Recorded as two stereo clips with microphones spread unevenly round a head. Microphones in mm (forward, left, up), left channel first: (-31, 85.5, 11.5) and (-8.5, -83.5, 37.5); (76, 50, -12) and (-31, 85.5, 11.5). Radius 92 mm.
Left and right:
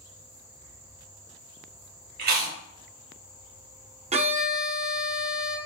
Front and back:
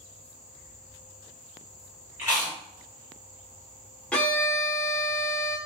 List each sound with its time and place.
2.2 s chewing: 120° right, 2.0 m
4.1 s a violin: 110° right, 0.9 m